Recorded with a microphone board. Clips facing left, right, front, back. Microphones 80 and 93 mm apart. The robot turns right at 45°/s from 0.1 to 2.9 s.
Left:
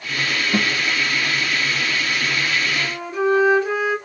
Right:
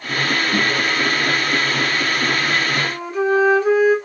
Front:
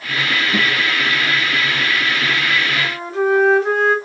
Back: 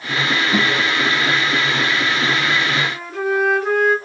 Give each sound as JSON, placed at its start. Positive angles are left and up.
{"t": 0.5, "sound": "a guitar", "azimuth_deg": 175, "distance_m": 1.1}
{"t": 2.7, "sound": "a flute", "azimuth_deg": -55, "distance_m": 2.0}